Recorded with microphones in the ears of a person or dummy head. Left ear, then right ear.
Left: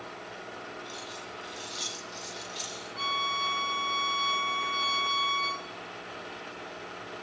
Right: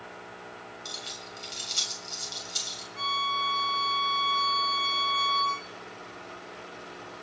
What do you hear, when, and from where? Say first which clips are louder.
0.8 s keys jangling: right 2 dB; 70° right (ahead or behind), 7 m
3.0 s a violin: right 1 dB; 5° right (ahead or behind), 2 m